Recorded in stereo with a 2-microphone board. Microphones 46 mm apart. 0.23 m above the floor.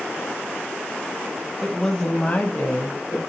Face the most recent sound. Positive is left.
turn(degrees=50)  # may be behind; listen again after turning